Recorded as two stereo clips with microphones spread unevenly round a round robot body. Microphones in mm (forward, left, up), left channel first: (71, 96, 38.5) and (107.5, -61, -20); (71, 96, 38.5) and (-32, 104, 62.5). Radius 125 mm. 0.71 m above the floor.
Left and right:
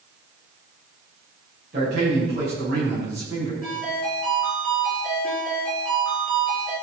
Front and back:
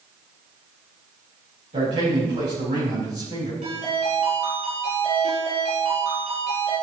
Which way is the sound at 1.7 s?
135° right.